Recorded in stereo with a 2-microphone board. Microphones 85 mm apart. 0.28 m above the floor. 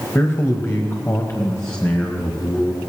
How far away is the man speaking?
About 1.3 m.